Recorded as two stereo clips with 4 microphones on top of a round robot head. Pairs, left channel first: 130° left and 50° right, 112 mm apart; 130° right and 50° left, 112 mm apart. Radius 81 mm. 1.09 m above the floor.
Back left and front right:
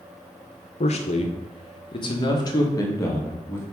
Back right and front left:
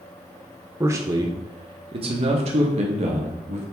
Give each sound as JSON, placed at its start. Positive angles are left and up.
{"t": 0.8, "sound": "a man speaking", "azimuth_deg": 115, "distance_m": 1.1}